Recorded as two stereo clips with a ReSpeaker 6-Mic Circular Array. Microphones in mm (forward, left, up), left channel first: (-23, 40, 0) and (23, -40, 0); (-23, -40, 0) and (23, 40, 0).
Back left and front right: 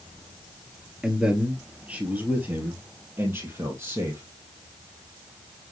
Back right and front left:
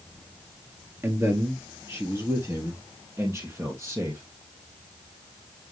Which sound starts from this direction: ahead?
A man speaking, at 1.0 s.